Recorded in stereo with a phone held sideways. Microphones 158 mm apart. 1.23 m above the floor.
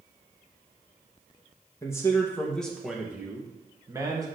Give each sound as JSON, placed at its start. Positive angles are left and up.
{"t": 1.8, "sound": "a man speaking", "side_deg": 20, "distance_m": 1.6}